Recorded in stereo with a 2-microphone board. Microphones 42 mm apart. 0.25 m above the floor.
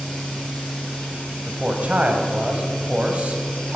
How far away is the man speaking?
About 1.4 m.